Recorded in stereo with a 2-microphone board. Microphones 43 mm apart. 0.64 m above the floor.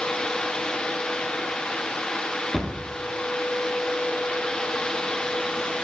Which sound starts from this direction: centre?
A cupboard door, at 2.5 s.